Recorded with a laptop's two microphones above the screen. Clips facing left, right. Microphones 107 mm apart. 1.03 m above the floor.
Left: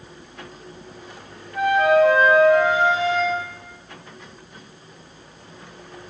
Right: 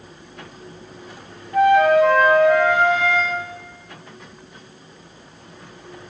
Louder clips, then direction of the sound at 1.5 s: Right 3 dB; 65° right (ahead or behind).